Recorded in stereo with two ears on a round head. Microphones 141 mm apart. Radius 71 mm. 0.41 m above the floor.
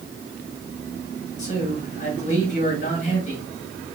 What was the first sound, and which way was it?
A man speaking, 50° left (ahead or behind).